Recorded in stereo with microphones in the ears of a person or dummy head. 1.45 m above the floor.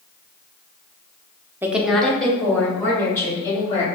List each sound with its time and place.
1.6 s a woman speaking: 10° right (ahead or behind), 0.5 m; by 3.9 s 20° left (ahead or behind), 3 m